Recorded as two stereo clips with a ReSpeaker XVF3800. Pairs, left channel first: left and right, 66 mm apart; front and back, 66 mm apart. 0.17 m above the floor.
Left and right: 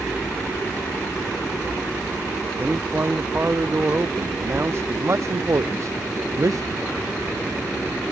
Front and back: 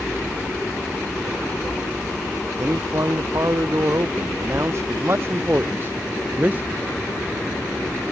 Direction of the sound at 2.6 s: 150° right.